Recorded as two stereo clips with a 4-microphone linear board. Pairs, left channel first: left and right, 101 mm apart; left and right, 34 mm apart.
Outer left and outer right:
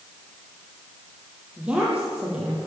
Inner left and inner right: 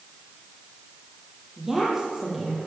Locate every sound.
1.6 s a woman speaking: 10° right (ahead or behind), 9.5 m